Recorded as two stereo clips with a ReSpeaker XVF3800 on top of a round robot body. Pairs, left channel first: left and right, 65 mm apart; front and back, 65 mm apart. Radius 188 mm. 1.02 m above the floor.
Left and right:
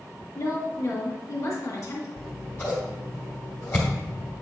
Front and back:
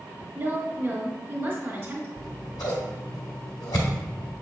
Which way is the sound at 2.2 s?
30° left.